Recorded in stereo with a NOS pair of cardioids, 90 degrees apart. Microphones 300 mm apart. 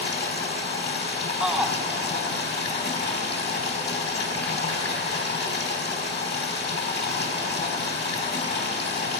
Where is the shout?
5° right, 0.9 m.